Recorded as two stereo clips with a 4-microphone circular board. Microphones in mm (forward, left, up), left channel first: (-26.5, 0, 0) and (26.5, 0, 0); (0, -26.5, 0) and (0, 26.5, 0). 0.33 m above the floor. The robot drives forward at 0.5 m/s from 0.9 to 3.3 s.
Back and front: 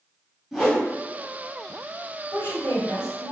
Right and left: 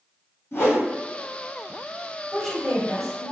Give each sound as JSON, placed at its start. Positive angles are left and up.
{"t": 0.5, "sound": "a whoosh", "azimuth_deg": -85, "distance_m": 1.6}
{"t": 2.3, "sound": "a woman speaking", "azimuth_deg": 180, "distance_m": 1.6}